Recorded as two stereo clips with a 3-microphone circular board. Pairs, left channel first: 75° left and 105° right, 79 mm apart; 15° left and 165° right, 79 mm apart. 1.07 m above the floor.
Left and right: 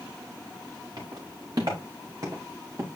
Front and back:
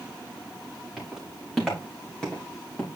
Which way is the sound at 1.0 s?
80° right.